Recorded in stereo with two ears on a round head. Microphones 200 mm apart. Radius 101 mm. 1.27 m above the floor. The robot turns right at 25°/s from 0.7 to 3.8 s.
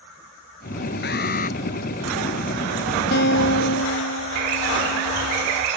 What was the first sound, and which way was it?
An alarm, 55° left (ahead or behind).